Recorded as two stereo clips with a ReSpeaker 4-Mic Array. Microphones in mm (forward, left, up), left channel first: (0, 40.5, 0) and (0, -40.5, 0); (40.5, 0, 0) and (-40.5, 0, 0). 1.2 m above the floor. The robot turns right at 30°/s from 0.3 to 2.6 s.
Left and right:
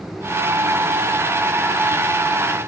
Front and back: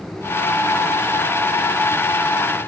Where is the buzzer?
I don't hear a buzzer.